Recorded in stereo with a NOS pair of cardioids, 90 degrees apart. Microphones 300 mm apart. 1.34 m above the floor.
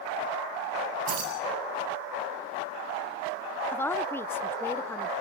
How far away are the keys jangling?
About 8.5 m.